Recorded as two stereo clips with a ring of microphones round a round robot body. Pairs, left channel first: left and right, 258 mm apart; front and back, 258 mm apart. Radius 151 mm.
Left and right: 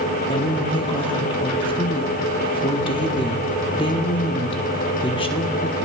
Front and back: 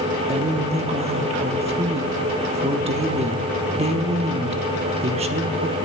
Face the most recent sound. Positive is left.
turn(degrees=140)